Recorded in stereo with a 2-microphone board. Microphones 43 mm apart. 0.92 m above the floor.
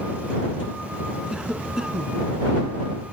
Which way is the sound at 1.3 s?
15° right (ahead or behind).